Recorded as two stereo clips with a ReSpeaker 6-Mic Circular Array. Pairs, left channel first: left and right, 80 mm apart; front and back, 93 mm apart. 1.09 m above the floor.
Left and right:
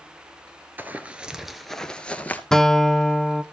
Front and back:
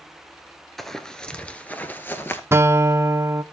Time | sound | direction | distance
0.8 | running footsteps | 85° right | 1.1 m
2.5 | a guitar | 165° left | 0.6 m